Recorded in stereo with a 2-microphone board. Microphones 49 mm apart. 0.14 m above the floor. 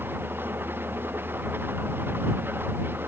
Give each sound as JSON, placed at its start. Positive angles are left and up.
{"t": 0.0, "sound": "an engine running", "side_deg": -40}